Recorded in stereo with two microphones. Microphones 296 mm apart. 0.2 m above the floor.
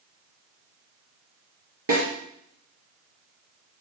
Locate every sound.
1.9 s a snare drum: 70° right (ahead or behind), 3.5 m